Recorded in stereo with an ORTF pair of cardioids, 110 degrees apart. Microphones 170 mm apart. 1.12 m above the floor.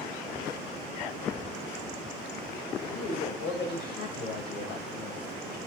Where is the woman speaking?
70° left, 4.5 m.